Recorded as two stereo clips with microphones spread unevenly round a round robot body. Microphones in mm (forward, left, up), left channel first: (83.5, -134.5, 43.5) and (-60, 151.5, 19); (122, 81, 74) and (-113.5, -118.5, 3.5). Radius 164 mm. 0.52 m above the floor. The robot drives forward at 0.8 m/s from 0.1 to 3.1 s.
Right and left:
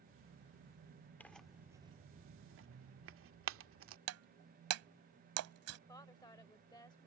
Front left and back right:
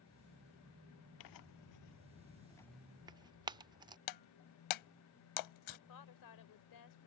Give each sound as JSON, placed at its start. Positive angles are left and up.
{"t": 1.2, "sound": "tearing paper", "azimuth_deg": 25}
{"t": 4.1, "sound": "breaking glass", "azimuth_deg": 70}
{"t": 5.9, "sound": "a woman speaking", "azimuth_deg": 15}